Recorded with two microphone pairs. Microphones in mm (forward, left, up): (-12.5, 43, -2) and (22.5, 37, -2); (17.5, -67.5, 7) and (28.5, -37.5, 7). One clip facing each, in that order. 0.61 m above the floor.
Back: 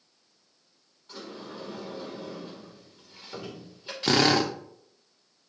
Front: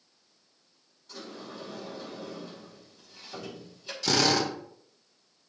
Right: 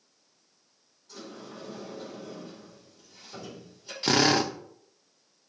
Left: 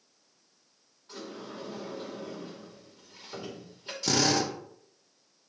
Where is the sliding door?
110° left, 2.5 m.